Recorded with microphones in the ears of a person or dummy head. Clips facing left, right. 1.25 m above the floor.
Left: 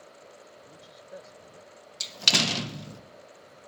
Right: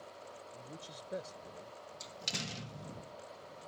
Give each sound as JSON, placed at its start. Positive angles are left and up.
{"t": 0.5, "sound": "a man speaking", "side_deg": -35}
{"t": 2.0, "sound": "a door slam", "side_deg": 75}